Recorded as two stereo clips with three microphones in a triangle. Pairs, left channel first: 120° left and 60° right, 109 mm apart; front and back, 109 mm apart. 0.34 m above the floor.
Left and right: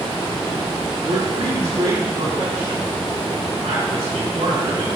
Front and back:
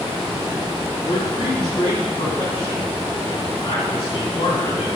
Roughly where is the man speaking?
Ahead right.